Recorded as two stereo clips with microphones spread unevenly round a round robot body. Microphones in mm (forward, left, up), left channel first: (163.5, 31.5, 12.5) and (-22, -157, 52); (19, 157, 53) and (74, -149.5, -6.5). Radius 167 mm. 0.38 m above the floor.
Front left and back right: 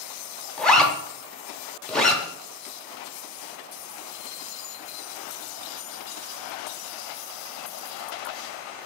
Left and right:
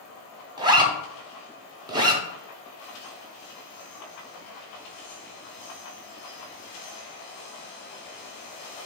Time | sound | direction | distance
0.6 | a zipper | 30° right | 0.7 m